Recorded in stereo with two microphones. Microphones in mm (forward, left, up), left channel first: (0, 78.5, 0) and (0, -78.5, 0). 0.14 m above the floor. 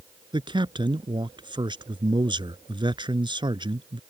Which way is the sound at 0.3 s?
30° right (ahead or behind).